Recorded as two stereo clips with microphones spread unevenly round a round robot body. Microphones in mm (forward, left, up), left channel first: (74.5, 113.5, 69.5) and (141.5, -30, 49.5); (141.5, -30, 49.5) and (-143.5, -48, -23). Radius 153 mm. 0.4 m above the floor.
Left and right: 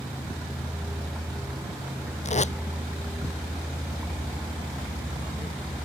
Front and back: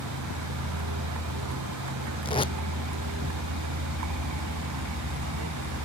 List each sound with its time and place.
0.0 s a vehicle: 150° right
2.2 s tape being pulled: 75° left